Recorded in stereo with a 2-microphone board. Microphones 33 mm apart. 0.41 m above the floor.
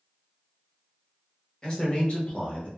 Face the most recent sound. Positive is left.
turn(degrees=40)  # may be behind; listen again after turning